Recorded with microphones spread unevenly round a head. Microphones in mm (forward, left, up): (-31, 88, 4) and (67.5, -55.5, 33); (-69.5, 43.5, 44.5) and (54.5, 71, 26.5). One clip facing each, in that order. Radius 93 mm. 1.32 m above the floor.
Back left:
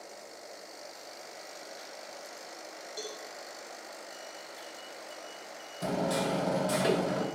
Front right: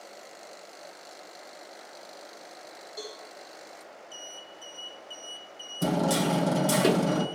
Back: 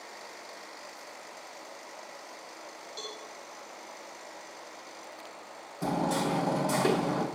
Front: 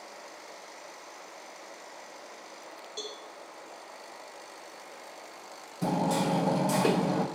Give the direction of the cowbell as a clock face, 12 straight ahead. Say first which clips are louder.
Front right 1 dB, front 2 dB; 10 o'clock.